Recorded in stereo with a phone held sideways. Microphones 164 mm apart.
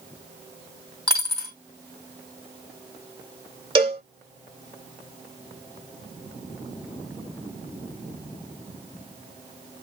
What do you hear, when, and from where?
1.1 s a dropped coin: 25° right (ahead or behind), 1.8 m
3.8 s a cowbell: 30° right (ahead or behind), 1.5 m